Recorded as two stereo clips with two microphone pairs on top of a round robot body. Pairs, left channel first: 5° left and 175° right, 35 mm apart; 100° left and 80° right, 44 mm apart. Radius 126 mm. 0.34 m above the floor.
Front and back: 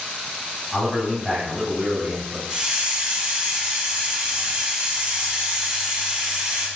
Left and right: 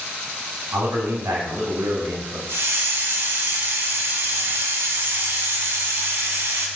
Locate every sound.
0.7 s a man speaking: 85° right, 3.5 m; by 2.4 s 90° right, 2.5 m
2.5 s a hiss: 110° right, 1.7 m